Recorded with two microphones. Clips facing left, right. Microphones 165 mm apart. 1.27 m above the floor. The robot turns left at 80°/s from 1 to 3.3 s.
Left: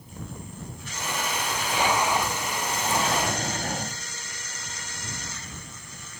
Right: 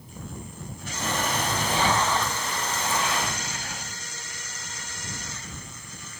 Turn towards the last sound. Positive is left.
turn(degrees=110)